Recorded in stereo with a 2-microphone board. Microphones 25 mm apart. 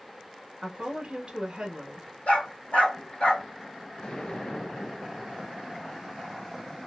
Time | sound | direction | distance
0.6 | a woman speaking | 30° right (ahead or behind) | 1.4 m
2.3 | a dog barking | 65° left (ahead or behind) | 1.8 m
4.0 | an explosion | 40° left (ahead or behind) | 0.9 m